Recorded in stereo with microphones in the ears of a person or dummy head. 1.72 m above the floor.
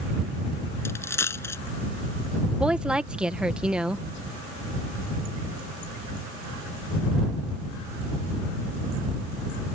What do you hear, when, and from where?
0.8 s a dropped coin: 15° left (ahead or behind)
2.6 s a woman speaking: 5° right (ahead or behind)